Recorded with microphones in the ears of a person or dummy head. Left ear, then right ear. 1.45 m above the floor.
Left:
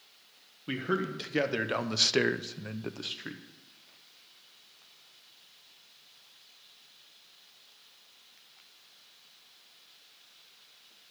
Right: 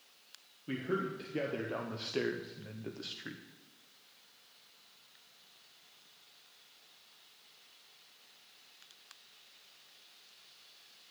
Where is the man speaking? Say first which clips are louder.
Left 4 dB; 40° left (ahead or behind), 1.2 m; by 3.4 s 15° left (ahead or behind), 0.8 m.